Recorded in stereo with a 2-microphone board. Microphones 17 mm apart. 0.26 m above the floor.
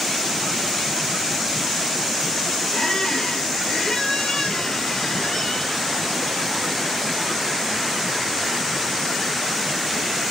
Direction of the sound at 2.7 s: 45° left (ahead or behind).